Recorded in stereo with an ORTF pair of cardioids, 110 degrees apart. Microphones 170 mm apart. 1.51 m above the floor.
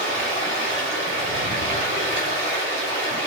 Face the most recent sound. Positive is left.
turn(degrees=-45)